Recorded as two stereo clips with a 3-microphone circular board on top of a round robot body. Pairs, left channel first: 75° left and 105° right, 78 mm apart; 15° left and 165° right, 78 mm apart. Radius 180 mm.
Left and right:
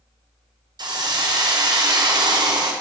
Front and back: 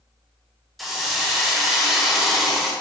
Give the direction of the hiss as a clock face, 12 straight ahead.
2 o'clock.